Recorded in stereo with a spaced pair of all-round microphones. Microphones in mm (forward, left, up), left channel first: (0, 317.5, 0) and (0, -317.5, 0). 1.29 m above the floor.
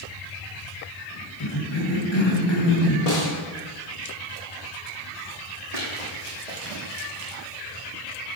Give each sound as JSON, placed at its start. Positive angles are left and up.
{"t": 1.4, "sound": "a cough", "side_deg": 40, "distance_m": 2.0}
{"t": 3.1, "sound": "a snare drum", "side_deg": 75, "distance_m": 2.0}
{"t": 5.7, "sound": "running footsteps", "side_deg": -70, "distance_m": 4.0}